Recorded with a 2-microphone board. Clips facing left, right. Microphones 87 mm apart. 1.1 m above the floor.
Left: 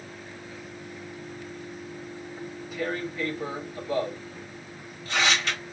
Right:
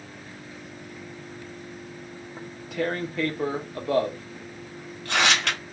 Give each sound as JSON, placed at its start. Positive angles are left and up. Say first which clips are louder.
{"t": 2.4, "sound": "tearing paper", "louder": "right 4 dB", "side_deg": -65, "distance_m": 1.1}